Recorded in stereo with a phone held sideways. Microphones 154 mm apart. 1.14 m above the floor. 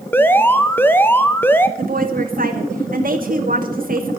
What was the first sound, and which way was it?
An alarm, 15° left (ahead or behind).